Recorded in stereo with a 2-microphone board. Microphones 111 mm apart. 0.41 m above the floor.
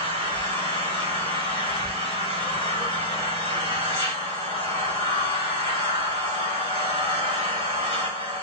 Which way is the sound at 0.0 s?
70° left (ahead or behind).